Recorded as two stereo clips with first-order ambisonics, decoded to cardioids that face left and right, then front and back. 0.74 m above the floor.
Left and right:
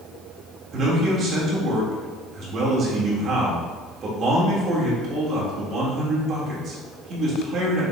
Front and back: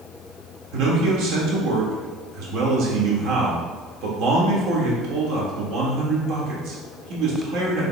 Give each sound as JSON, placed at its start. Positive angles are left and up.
{"t": 0.7, "sound": "a man speaking", "azimuth_deg": -150, "distance_m": 1.6}